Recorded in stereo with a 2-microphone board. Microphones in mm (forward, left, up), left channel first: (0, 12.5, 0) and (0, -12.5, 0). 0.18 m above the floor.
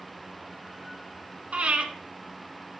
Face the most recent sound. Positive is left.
turn(degrees=-50)  # may be behind; listen again after turning